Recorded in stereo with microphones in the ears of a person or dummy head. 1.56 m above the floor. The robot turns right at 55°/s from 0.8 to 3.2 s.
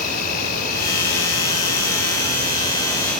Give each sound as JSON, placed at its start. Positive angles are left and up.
{"t": 0.0, "sound": "an insect", "azimuth_deg": 45, "distance_m": 1.2}